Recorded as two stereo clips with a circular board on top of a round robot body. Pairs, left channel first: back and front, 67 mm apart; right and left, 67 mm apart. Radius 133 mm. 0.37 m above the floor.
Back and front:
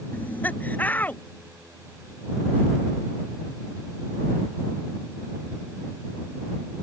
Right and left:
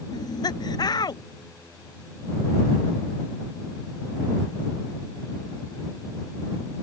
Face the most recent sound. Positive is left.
turn(degrees=-115)